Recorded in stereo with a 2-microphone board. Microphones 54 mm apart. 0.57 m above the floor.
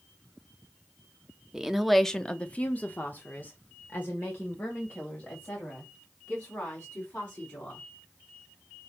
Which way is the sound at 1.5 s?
10° right (ahead or behind).